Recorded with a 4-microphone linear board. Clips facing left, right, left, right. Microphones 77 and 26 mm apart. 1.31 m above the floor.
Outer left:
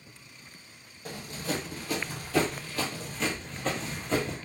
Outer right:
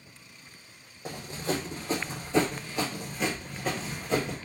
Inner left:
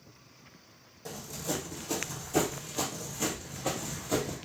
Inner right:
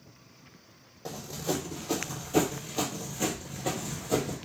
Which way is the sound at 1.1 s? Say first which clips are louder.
Outer right 2 dB, inner right 3 dB; 25° right (ahead or behind).